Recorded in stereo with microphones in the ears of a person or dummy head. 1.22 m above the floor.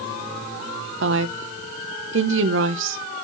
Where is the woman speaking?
60° right (ahead or behind), 0.7 m.